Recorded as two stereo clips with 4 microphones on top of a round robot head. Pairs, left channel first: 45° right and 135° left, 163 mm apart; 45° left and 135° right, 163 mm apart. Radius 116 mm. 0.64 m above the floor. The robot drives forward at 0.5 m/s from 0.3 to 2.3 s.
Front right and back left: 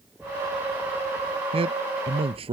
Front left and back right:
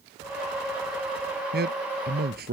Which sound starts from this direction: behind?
A man speaking, at 1.5 s.